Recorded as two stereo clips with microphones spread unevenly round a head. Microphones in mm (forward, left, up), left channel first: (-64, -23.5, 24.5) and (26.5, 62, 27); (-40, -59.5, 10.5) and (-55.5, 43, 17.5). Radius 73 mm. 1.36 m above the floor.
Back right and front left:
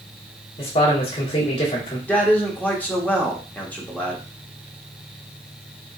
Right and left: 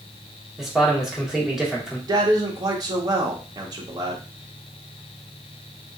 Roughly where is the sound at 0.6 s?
Behind.